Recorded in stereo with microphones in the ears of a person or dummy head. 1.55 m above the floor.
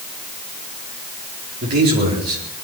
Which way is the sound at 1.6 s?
50° right (ahead or behind).